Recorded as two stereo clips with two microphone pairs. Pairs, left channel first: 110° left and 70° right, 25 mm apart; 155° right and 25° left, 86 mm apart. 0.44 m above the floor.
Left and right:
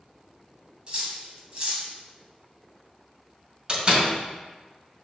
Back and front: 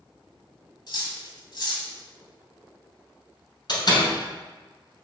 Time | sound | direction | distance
0.9 | cutlery clinking | 120° right | 1.8 m
3.7 | a door slam | 120° right | 2 m